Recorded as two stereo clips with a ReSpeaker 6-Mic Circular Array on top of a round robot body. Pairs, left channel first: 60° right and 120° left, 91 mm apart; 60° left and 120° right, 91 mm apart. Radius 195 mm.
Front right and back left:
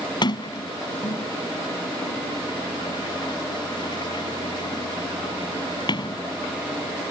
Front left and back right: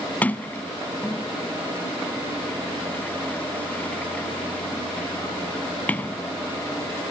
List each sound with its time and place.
0.2 s a sliding door: 15° right